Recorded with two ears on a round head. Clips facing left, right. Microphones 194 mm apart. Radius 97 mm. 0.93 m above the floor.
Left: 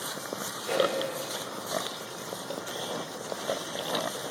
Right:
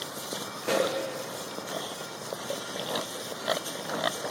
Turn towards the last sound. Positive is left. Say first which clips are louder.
# even
turn(degrees=-65)  # may be behind; listen again after turning